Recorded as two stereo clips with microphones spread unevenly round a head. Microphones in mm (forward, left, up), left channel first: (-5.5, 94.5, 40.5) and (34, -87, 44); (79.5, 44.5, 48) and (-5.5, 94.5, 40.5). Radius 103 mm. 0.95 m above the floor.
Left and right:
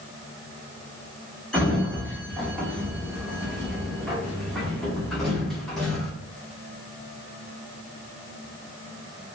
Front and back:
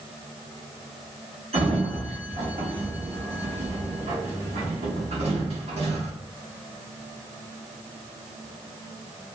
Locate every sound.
1.5 s a sliding door: 170° right, 0.6 m